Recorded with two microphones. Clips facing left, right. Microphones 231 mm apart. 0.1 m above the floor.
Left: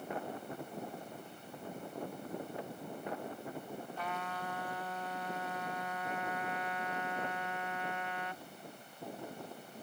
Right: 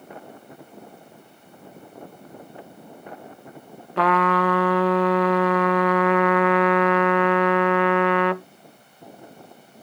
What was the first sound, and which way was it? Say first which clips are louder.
A trumpet: right 25 dB; 80° right.